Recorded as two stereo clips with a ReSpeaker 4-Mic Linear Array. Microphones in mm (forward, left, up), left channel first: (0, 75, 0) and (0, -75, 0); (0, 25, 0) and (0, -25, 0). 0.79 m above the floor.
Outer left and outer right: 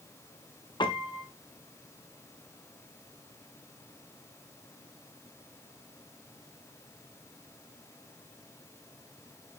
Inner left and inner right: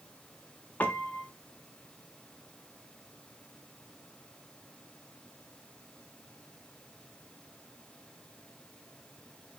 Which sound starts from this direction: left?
A piano, at 0.8 s.